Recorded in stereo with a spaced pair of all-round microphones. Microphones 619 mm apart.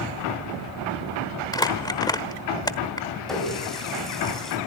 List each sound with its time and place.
1.5 s crumpling: 5° left (ahead or behind), 1.3 m
3.3 s a running tap: centre (ahead or behind), 6.5 m